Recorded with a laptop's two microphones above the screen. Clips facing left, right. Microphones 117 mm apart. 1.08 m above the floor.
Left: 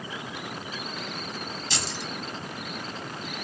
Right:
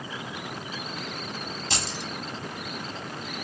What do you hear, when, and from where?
1.7 s keys jangling: 55° right (ahead or behind), 1.0 m